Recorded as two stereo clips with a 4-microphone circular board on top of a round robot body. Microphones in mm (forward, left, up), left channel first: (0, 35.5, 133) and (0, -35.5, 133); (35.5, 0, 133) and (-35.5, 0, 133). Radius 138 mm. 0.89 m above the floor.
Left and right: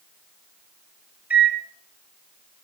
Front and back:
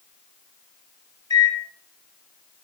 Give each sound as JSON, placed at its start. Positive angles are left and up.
{"t": 1.3, "sound": "a microwave", "azimuth_deg": -25, "distance_m": 0.8}